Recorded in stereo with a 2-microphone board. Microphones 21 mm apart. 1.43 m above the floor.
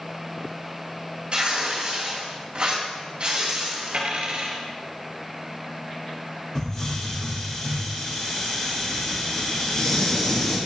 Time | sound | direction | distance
1.3 | tearing paper | 55° right (ahead or behind) | 3 m
3.9 | a dropped coin | 65° right (ahead or behind) | 1.9 m
6.5 | a hiss | 35° left (ahead or behind) | 2.5 m